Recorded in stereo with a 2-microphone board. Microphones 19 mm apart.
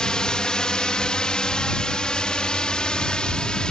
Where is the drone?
50° left (ahead or behind); by 3.7 s 55° left (ahead or behind).